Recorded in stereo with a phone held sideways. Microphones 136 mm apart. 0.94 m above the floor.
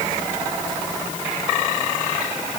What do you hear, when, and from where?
Only background noise.